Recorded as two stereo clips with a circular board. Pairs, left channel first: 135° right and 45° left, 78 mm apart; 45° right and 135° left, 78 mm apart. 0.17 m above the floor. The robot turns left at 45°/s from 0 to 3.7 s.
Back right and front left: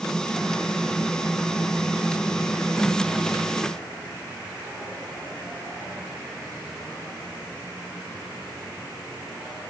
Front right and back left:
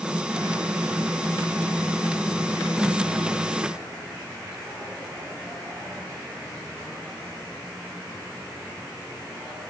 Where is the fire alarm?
No fire alarm in this recording.